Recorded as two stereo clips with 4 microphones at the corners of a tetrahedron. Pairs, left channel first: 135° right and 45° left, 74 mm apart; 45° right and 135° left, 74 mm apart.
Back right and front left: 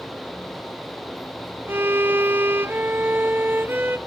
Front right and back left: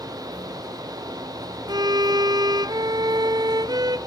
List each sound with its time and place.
1.7 s a violin: 105° left, 0.6 m